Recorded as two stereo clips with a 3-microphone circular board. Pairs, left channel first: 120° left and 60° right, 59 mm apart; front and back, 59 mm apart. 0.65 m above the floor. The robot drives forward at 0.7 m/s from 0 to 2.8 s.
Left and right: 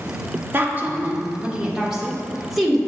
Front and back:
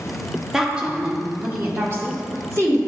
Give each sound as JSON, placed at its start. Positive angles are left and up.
{"t": 0.5, "sound": "a woman speaking", "azimuth_deg": -100, "distance_m": 1.3}